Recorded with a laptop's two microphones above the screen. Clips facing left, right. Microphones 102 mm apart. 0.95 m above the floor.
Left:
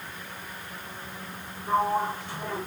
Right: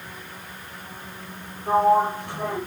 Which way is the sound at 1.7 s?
70° right (ahead or behind).